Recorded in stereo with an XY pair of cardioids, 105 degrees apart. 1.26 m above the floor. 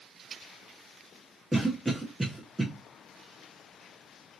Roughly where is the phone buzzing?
No phone buzzing in this recording.